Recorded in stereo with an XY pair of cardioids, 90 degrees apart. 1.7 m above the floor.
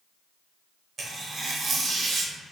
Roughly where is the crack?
I don't hear a crack.